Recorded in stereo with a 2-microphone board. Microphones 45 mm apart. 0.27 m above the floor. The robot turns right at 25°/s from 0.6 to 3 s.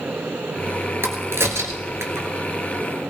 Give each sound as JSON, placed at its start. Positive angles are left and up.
{"t": 1.0, "sound": "a crack", "side_deg": -70, "distance_m": 1.6}